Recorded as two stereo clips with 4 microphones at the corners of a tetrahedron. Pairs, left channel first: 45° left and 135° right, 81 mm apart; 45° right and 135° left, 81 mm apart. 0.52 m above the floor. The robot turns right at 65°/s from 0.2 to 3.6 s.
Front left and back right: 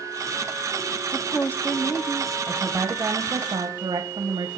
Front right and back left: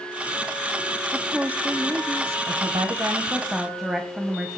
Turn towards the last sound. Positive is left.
turn(degrees=-145)